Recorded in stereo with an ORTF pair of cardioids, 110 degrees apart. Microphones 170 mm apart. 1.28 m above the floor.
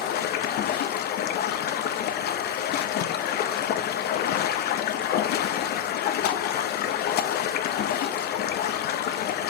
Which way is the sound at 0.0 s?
70° left.